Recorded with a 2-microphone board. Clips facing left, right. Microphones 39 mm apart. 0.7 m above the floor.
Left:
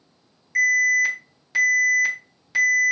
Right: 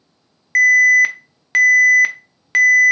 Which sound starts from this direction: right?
An alarm, at 0.6 s.